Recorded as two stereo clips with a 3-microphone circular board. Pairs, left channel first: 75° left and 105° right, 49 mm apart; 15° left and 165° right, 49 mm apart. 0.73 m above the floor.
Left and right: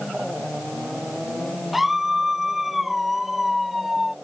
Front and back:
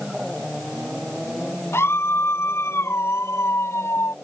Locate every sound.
1.7 s a scream: 20° right; by 4.2 s 15° right